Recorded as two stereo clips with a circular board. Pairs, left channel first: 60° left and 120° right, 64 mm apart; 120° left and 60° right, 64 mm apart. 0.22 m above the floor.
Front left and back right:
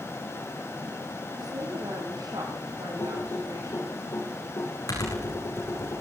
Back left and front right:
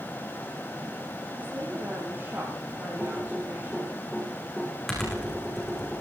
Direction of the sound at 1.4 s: 120° right.